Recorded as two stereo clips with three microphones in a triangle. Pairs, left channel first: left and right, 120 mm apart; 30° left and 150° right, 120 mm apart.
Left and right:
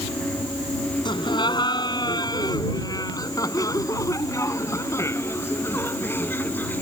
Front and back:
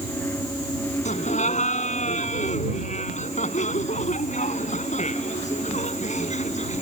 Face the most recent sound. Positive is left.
turn(degrees=15)